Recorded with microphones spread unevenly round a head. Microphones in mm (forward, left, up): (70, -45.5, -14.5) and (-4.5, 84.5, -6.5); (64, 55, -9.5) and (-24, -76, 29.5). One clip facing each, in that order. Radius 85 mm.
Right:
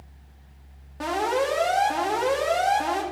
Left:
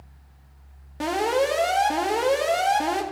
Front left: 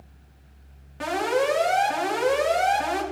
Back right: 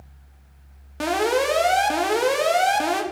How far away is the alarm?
About 1.8 m.